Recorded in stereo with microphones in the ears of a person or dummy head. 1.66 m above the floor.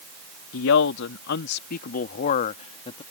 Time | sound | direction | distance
0.5 | a man speaking | 75° left (ahead or behind) | ?